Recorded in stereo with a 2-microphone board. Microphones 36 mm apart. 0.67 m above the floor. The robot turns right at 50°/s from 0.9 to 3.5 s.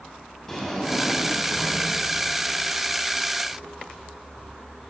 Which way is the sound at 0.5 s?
5° left.